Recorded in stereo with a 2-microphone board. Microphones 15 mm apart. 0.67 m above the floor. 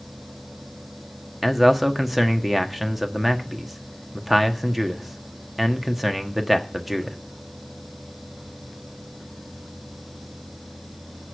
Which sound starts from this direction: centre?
A man speaking, at 1.4 s.